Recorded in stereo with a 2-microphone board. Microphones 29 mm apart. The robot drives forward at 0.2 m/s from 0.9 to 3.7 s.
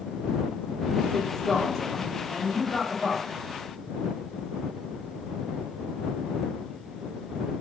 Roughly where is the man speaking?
Centre.